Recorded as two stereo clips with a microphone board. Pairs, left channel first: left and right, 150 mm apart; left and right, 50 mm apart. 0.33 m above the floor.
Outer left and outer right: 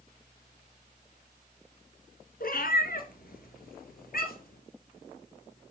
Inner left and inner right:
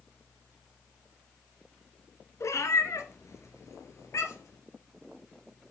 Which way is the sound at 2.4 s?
80° left.